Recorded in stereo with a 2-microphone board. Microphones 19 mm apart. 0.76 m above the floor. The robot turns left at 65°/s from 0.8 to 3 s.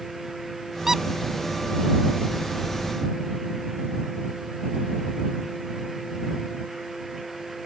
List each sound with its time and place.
0.9 s a squeak: 30° right (ahead or behind); by 1.0 s 20° right (ahead or behind)